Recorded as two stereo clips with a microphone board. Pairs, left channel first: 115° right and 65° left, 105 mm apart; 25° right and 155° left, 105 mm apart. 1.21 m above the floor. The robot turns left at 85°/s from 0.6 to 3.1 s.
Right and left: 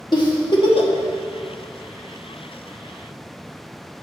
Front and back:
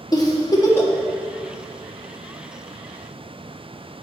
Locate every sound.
0.1 s a giggle: 70° right, 0.9 m; by 0.9 s 100° right, 0.9 m